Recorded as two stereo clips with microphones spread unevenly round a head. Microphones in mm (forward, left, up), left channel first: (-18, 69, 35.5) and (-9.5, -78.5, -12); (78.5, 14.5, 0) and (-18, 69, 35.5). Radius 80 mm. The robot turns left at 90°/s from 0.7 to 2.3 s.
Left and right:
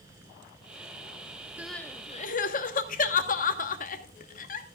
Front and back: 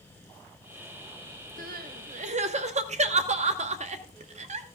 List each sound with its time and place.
1.6 s crying: 165° right, 1.2 m; by 4.7 s 130° left, 1.2 m